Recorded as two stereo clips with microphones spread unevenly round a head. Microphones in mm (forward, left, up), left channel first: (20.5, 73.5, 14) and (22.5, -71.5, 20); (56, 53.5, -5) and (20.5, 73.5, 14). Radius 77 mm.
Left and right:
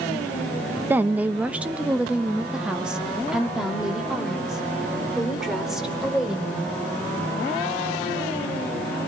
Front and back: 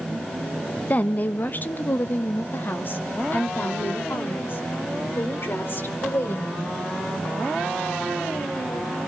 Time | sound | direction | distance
0.9 | a woman speaking | 10° right | 0.7 m